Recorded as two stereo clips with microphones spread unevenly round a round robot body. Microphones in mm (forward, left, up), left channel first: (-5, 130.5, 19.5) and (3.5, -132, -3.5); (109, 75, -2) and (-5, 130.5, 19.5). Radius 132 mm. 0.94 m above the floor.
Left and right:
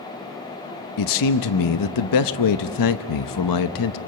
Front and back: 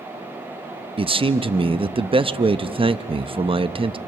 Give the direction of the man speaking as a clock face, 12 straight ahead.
9 o'clock.